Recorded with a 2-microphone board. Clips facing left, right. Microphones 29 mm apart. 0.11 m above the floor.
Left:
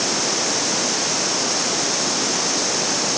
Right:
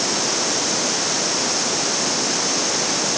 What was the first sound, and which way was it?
Only background noise.